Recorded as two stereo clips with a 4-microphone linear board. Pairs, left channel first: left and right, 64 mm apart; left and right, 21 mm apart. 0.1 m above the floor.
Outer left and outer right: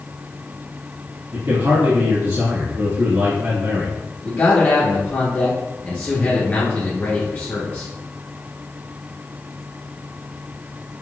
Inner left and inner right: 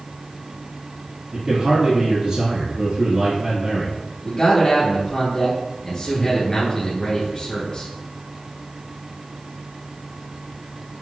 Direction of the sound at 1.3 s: 45° right (ahead or behind).